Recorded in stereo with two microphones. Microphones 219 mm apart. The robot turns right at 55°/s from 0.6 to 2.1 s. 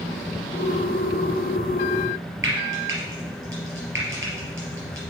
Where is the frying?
65° right (ahead or behind), 3.5 m.